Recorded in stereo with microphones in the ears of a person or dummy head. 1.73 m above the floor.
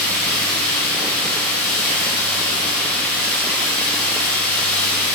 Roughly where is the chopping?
I don't hear chopping.